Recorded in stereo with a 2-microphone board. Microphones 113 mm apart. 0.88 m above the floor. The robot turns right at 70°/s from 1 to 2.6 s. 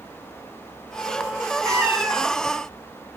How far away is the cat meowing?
About 1.0 m.